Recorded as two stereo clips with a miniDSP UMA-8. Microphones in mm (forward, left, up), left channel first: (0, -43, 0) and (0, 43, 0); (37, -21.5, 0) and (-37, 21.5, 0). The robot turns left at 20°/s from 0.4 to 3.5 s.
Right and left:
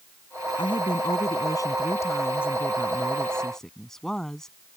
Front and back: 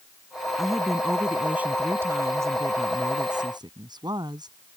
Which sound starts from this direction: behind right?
A woman speaking, at 0.6 s.